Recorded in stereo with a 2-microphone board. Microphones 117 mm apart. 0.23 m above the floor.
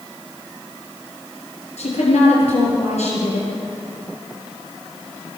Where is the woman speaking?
75° left (ahead or behind), 5 m.